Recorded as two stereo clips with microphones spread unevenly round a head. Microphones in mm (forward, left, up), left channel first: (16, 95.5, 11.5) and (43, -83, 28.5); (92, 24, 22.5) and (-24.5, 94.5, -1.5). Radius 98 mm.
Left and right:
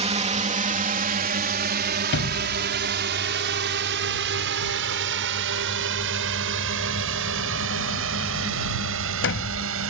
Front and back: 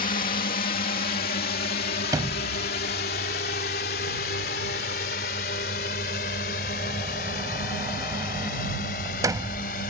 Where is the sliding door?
80° left.